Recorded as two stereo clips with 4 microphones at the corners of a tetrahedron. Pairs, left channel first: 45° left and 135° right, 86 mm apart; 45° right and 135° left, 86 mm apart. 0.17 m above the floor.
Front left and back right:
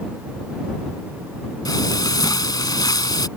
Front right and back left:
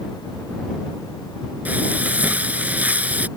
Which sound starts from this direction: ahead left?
Frying, at 1.6 s.